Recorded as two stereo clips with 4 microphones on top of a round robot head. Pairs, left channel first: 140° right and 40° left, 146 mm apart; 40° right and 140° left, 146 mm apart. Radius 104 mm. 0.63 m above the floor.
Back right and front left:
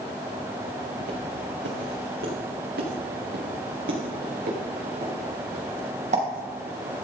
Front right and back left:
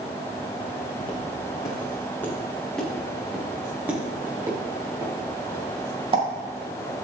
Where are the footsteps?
20° left, 4 m; by 6.2 s 85° left, 6 m.